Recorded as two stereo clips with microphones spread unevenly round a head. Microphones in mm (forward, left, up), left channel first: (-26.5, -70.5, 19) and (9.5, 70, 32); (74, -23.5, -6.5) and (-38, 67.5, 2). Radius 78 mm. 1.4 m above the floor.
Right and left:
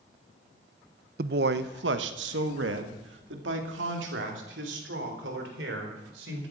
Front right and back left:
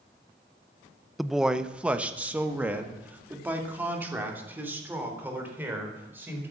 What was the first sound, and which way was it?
A man speaking, 55° left.